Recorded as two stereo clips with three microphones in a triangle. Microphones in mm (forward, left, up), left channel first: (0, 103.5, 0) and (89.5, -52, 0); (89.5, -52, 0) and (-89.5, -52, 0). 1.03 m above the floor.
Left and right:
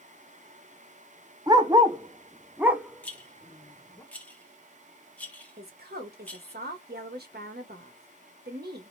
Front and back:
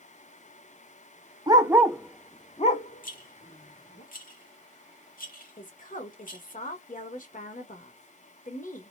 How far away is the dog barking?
About 0.8 m.